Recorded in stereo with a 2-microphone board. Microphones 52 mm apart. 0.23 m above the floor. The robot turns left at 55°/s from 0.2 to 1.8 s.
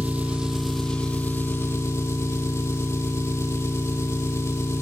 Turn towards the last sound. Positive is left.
turn(degrees=115)